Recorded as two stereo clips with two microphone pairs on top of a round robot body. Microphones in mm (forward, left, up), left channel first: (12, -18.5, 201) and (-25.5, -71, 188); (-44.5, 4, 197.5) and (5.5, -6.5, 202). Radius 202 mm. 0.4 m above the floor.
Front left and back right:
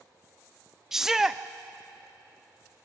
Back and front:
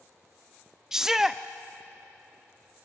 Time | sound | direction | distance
0.9 | a shout | 95° right | 0.8 m